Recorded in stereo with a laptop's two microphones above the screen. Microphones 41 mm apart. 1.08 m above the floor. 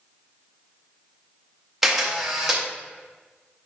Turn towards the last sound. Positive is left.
turn(degrees=0)  # may be behind; listen again after turning